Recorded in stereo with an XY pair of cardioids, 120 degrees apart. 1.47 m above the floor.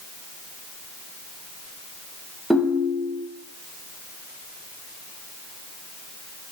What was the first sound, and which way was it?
A ringtone, 5° right.